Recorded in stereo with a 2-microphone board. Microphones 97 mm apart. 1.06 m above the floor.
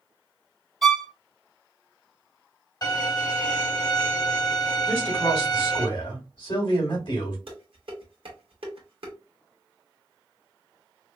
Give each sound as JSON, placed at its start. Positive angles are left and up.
{"t": 0.8, "sound": "a violin", "side_deg": 0, "distance_m": 0.6}
{"t": 2.8, "sound": "a violin", "side_deg": 45, "distance_m": 2.5}
{"t": 4.9, "sound": "a man speaking", "side_deg": 50, "distance_m": 2.5}
{"t": 7.5, "sound": "dishes clattering", "side_deg": -70, "distance_m": 1.3}